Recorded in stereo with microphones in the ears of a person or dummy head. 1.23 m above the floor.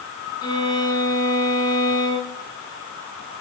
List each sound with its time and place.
0.4 s a violin: 20° left (ahead or behind), 2.5 m